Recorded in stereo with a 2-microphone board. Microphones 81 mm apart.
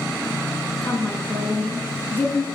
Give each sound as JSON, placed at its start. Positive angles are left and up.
{"t": 0.8, "sound": "a woman speaking", "side_deg": 20, "distance_m": 4.0}